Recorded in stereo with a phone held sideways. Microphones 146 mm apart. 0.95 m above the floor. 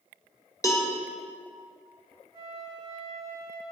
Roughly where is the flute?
Right.